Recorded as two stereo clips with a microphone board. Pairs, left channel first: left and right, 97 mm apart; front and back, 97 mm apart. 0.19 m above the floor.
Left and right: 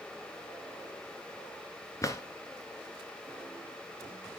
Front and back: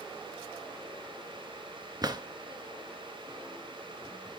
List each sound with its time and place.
2.0 s a drawer: 140° left, 1.7 m